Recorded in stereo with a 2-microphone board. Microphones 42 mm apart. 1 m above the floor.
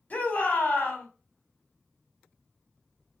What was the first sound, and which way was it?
A shout, 40° left (ahead or behind).